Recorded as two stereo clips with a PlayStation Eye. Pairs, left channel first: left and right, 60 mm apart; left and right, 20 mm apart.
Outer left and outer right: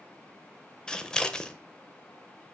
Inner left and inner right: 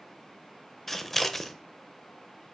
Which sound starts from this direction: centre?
Scissors, at 0.9 s.